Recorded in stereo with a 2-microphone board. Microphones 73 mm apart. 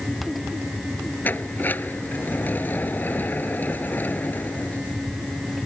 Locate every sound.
1.2 s a sliding door: 30° left (ahead or behind)